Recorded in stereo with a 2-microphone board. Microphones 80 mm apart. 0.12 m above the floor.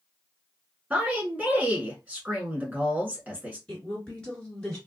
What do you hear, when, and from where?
0.9 s a woman speaking: 20° right (ahead or behind), 1.3 m
3.7 s a woman speaking: 10° left (ahead or behind), 2 m